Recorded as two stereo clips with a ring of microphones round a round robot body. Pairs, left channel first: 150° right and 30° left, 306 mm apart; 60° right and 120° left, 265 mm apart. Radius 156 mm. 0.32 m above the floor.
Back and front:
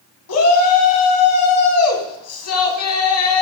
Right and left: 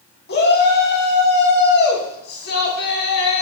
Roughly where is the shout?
Behind right.